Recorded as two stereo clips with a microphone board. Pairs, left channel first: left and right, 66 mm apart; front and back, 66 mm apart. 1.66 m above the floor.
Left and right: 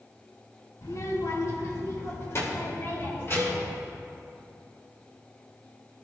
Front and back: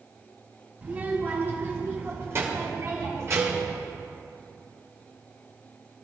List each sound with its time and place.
0.8 s a child speaking: 120° left, 3 m; by 3.7 s 140° left, 6.5 m
3.4 s a cowbell: 145° right, 1.3 m